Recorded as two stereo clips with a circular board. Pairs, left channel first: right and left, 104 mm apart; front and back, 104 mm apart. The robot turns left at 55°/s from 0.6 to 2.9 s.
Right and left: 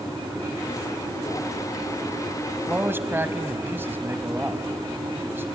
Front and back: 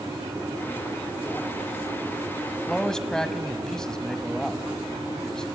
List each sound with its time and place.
2.5 s a man speaking: 95° left, 1.0 m; by 5.5 s 75° left, 1.0 m